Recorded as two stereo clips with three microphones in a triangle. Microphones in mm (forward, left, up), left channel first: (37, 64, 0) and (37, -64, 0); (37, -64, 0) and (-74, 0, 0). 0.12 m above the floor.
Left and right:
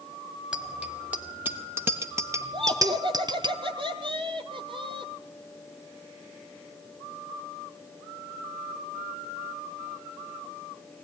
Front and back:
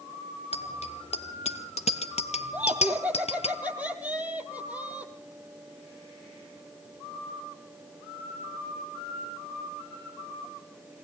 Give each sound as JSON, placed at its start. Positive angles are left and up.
{"t": 0.5, "sound": "a bicycle bell", "azimuth_deg": -10, "distance_m": 3.0}
{"t": 2.5, "sound": "laughter", "azimuth_deg": -135, "distance_m": 4.0}